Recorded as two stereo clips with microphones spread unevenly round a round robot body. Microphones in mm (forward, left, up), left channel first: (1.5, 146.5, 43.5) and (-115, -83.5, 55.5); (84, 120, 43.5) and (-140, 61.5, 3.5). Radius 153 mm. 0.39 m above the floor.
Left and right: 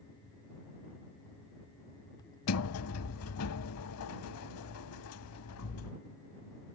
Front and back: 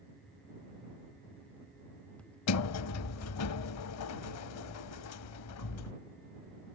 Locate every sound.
2.5 s a sliding door: 20° left